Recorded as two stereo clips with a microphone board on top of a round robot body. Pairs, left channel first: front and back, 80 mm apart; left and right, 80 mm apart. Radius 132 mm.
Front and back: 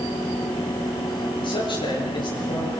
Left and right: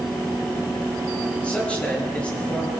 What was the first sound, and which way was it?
A man speaking, 15° left.